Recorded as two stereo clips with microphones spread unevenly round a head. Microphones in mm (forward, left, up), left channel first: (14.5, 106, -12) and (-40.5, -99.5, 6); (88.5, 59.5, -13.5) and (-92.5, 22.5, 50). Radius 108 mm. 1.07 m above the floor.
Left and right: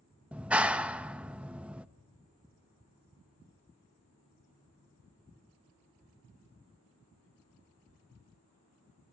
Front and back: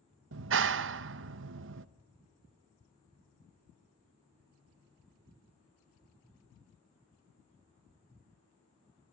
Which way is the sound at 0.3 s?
170° left.